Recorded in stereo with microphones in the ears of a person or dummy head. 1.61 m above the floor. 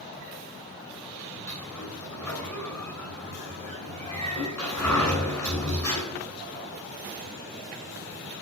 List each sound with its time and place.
1.5 s a sliding door: 10° left (ahead or behind), 9.5 m